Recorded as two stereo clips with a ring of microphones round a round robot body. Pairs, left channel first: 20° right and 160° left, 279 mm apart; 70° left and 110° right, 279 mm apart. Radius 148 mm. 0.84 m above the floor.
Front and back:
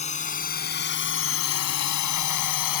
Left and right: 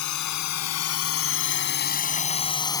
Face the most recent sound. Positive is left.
turn(degrees=-10)